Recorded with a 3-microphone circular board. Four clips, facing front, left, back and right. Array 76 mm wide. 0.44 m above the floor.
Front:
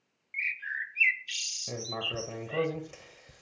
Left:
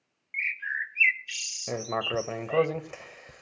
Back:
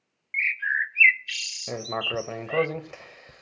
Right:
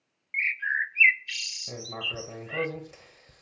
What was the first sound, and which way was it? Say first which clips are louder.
A bird: right 4 dB, back 9 dB; 155° right.